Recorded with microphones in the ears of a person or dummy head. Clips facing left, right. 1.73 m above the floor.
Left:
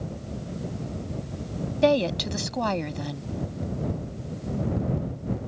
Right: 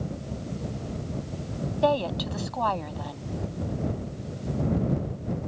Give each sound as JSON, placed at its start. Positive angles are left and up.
{"t": 1.8, "sound": "a woman speaking", "side_deg": 35}